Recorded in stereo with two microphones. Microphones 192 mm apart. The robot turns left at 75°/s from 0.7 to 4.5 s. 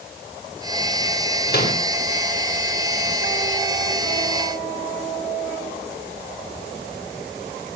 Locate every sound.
1.5 s a microwave: 60° left (ahead or behind), 3.5 m; by 1.8 s 35° left (ahead or behind), 3.5 m